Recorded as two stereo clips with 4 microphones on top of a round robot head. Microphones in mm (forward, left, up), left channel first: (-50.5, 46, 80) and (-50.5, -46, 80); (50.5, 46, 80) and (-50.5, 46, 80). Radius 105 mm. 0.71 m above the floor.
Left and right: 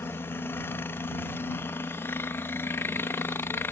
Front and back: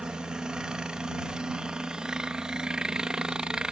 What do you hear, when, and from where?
0.0 s a helicopter: 110° left